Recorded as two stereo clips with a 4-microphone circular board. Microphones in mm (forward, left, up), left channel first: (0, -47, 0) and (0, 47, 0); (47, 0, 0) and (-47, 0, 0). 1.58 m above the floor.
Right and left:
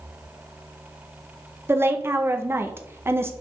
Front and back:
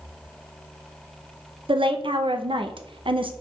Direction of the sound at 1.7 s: 155° left.